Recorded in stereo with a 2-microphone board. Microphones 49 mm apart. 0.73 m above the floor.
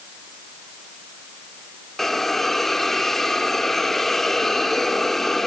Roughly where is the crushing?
I don't hear crushing.